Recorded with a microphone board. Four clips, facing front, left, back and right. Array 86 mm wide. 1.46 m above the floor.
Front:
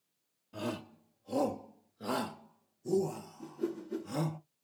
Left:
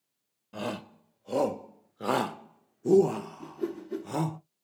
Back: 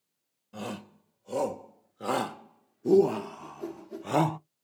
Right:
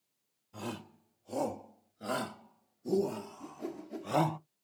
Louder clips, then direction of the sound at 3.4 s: Left 7 dB, front 2 dB; 70° left.